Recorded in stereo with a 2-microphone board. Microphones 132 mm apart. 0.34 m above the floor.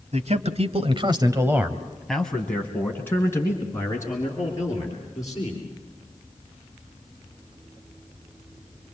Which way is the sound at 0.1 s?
60° right (ahead or behind).